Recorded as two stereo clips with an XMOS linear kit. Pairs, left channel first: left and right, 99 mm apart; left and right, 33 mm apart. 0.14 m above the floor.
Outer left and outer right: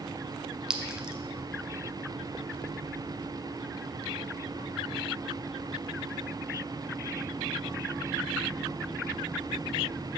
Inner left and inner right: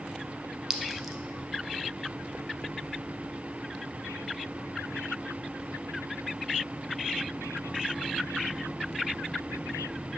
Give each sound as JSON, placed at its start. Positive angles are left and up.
{"t": 0.7, "sound": "a clink", "side_deg": -5, "distance_m": 0.6}